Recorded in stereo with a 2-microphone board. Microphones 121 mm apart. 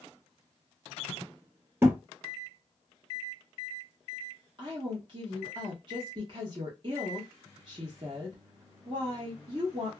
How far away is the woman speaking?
About 0.9 m.